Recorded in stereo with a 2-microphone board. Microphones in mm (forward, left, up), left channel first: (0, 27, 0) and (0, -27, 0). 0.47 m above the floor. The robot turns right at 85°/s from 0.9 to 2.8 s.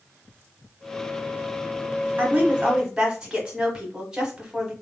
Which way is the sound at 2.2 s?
80° right.